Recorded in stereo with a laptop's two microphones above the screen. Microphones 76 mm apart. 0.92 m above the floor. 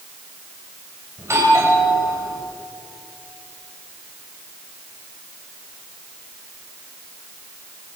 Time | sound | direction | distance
1.2 | a doorbell | 40° right (ahead or behind) | 7 m